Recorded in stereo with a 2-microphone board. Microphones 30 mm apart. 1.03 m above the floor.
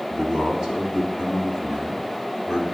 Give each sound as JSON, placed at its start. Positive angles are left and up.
{"t": 0.1, "sound": "a man speaking", "side_deg": -20, "distance_m": 3.0}